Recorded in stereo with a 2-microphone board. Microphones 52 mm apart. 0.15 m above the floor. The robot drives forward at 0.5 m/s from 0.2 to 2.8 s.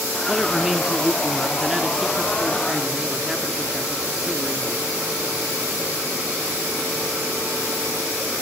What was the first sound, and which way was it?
A man speaking, 10° right (ahead or behind).